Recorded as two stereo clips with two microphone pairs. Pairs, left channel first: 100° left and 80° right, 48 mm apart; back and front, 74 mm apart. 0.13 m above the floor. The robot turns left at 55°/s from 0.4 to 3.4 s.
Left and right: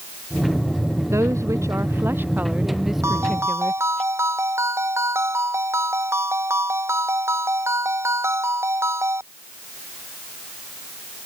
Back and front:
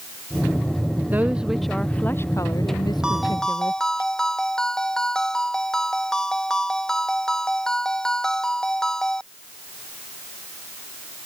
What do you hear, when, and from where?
1.1 s a woman speaking: 60° right; by 4.0 s 170° left
3.0 s a ringtone: 75° right; by 9.2 s 100° right